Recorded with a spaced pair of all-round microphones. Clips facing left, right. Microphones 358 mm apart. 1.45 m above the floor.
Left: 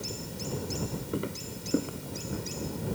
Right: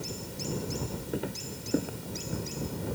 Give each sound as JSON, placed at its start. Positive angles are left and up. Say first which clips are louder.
{"t": 1.1, "sound": "footsteps", "louder": "even", "side_deg": 5}